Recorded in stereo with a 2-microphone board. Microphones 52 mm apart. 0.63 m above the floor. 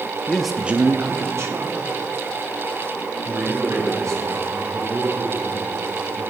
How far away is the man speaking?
About 0.6 m.